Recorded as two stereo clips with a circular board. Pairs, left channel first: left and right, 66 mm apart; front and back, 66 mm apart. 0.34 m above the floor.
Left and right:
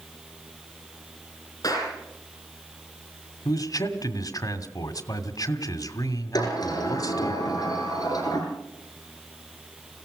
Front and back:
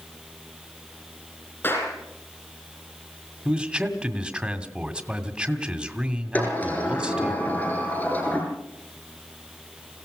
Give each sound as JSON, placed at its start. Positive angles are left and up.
{"t": 1.6, "sound": "a clap", "azimuth_deg": 60, "distance_m": 9.5}
{"t": 3.5, "sound": "a man speaking", "azimuth_deg": 105, "distance_m": 2.0}
{"t": 6.3, "sound": "a sliding door", "azimuth_deg": 65, "distance_m": 6.0}